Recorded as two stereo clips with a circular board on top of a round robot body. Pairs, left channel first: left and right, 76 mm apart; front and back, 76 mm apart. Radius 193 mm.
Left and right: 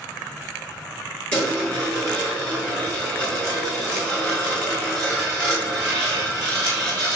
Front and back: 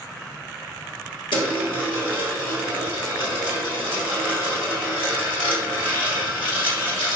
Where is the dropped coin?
15° left, 1.6 m.